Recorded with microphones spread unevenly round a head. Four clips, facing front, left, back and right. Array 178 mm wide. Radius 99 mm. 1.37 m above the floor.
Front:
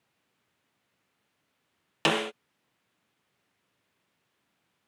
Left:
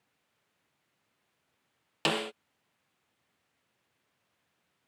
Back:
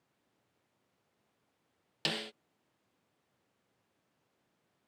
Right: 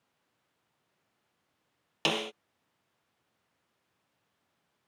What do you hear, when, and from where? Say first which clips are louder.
2.0 s a snare drum: left 1 dB, front 13 dB; 10° left